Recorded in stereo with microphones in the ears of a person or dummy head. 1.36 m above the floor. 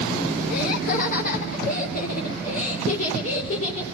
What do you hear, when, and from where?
0.5 s laughter: 60° left (ahead or behind), 1.6 m; by 3.9 s 45° left (ahead or behind), 4.5 m